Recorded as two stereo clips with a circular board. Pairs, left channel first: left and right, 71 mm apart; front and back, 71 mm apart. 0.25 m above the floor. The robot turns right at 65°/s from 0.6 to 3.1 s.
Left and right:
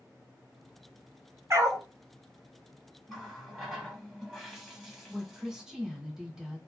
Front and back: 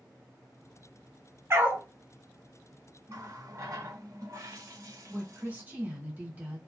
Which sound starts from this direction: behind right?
A dog barking, at 1.5 s.